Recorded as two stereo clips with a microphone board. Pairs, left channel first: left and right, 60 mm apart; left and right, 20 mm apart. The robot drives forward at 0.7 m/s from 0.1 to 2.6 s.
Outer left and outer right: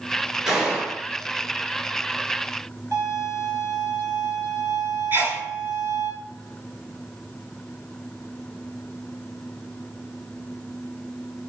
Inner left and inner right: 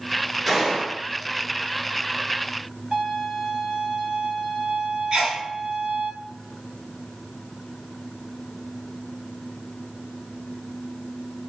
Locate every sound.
0.5 s a gunshot: 10° right (ahead or behind), 2 m
2.9 s a violin: 60° right (ahead or behind), 1.1 m
5.1 s a sneeze: 35° right (ahead or behind), 1.4 m